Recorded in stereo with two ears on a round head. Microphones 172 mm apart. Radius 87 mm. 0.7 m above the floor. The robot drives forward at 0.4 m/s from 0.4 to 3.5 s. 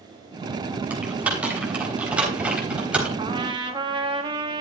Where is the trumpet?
25° right (ahead or behind), 1.2 m.